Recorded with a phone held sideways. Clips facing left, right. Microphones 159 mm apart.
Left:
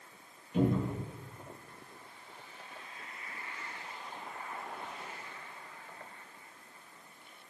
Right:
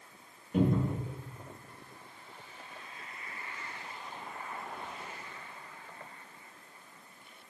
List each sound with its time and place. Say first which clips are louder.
0.5 s a cupboard door: right 1 dB; 55° right (ahead or behind), 1.4 m